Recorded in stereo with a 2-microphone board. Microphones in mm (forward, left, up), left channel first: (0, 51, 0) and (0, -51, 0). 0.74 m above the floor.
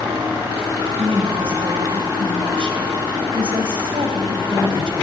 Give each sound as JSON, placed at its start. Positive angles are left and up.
{"t": 1.0, "sound": "a woman speaking", "side_deg": -55, "distance_m": 4.5}